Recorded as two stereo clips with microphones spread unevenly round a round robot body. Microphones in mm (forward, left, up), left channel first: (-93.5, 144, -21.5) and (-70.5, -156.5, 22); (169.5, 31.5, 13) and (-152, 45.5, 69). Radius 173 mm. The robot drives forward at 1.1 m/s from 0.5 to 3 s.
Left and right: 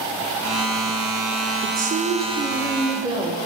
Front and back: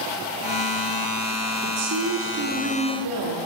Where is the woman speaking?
130° right, 1.2 m; by 3.4 s 160° right, 2.5 m.